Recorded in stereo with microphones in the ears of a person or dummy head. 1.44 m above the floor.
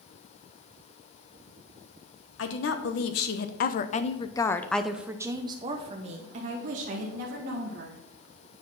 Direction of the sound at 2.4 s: 75° left (ahead or behind).